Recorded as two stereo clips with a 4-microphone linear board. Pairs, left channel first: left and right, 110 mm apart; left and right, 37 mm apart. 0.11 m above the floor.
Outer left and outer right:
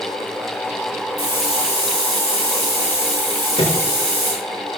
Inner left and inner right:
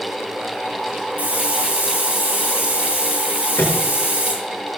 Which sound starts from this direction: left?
A microwave, at 3.6 s.